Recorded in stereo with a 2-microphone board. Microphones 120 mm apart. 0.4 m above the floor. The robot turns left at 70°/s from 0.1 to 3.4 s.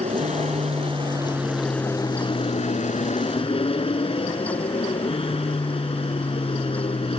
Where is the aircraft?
75° right; by 7.2 s 55° left.